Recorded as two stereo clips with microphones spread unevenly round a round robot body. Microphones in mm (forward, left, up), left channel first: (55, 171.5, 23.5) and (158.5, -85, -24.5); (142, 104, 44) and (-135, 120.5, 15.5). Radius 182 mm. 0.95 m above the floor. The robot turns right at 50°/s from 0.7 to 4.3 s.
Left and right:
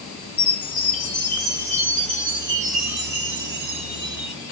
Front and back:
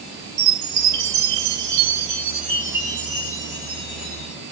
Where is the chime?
155° left, 1.1 m; by 4.3 s 25° right, 1.1 m.